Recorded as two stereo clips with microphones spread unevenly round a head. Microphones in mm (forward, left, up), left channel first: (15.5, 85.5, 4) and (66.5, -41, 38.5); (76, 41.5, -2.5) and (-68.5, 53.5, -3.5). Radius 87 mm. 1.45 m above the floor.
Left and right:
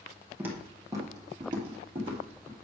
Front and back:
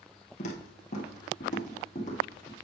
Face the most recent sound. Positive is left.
turn(degrees=-50)